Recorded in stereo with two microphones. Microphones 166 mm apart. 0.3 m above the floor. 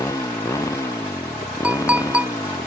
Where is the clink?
5° right (ahead or behind).